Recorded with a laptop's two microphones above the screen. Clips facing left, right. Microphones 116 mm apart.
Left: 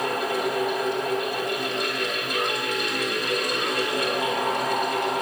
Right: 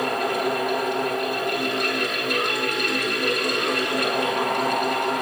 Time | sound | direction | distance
0.0 | a fan | 70° right (ahead or behind) | 5.5 m